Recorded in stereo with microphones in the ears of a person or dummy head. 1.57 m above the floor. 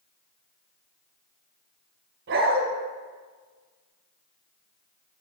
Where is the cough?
No cough in this recording.